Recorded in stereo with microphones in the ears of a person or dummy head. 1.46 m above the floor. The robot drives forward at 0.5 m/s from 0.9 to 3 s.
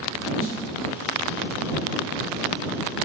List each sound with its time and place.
0.4 s a snare drum: 45° left (ahead or behind), 4 m